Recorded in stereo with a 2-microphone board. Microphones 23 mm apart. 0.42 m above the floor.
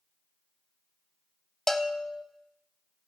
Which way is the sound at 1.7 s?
20° left (ahead or behind).